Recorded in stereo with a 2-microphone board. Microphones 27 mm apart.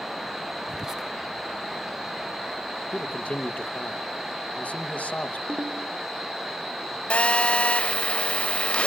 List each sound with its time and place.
0.7 s whispering: 20° right (ahead or behind), 0.9 m
2.9 s a man speaking: 75° left (ahead or behind), 1.2 m
5.5 s a ringtone: 80° right, 2.5 m
7.1 s a phone buzzing: 60° left (ahead or behind), 1.7 m